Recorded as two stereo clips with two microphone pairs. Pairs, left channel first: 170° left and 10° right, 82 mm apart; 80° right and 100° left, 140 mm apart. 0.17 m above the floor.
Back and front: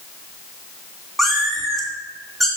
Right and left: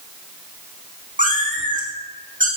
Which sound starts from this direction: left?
A cat meowing, at 1.2 s.